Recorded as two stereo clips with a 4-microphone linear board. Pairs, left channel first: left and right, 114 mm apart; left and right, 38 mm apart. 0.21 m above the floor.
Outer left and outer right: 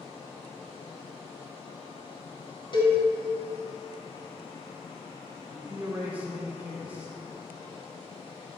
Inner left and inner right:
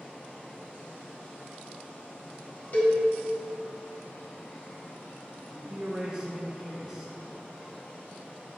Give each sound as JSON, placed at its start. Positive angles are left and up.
{"t": 2.7, "sound": "a cowbell", "side_deg": 40, "distance_m": 2.0}
{"t": 5.5, "sound": "a man speaking", "side_deg": -15, "distance_m": 1.8}